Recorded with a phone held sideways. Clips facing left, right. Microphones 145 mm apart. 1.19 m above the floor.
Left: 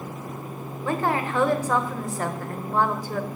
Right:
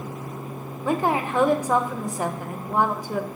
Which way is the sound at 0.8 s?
15° right (ahead or behind).